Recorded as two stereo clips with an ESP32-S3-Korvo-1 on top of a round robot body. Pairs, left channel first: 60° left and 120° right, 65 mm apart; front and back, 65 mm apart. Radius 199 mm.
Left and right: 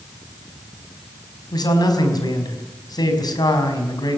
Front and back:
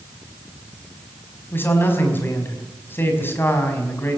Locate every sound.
1.5 s a man speaking: 55° left, 5 m